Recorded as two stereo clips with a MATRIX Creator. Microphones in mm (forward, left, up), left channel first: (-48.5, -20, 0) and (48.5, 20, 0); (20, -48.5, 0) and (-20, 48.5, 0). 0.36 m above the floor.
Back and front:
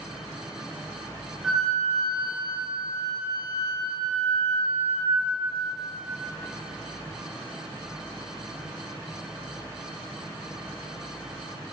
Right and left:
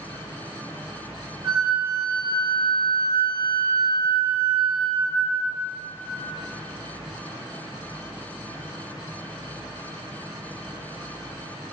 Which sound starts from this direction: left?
A flute, at 1.4 s.